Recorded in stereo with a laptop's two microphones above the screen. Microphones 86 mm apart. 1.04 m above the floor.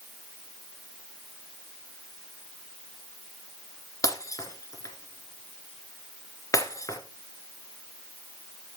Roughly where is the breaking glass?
Left.